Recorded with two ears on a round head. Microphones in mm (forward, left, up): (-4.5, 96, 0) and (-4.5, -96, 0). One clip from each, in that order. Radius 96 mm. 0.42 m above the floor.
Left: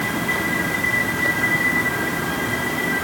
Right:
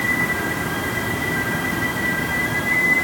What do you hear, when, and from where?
Only background noise.